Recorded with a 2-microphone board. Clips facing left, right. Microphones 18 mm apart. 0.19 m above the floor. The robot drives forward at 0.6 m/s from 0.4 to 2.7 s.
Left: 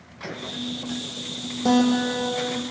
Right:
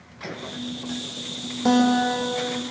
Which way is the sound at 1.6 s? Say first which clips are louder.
Right 1 dB; 35° right (ahead or behind).